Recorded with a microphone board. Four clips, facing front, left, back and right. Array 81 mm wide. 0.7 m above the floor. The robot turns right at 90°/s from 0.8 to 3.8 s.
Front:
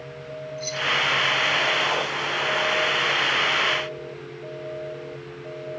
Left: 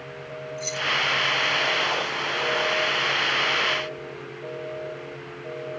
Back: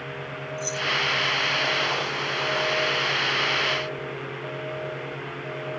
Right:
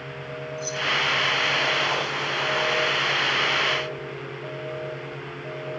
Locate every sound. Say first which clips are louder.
0.6 s keys jangling: even, even; 65° left; by 0.9 s 70° left